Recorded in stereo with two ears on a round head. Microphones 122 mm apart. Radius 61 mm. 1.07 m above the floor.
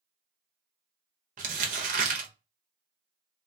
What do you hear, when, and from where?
1.4 s crumpling: 65° right (ahead or behind), 0.9 m